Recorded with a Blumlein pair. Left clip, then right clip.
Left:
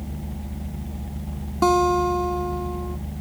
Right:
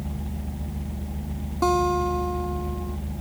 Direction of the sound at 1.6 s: 10° left.